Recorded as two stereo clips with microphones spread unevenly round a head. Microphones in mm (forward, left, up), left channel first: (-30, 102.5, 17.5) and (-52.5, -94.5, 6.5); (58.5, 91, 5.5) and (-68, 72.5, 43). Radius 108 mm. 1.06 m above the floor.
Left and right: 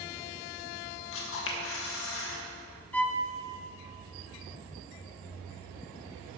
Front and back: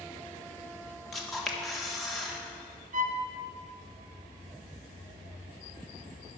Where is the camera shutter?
100° left, 1.4 m.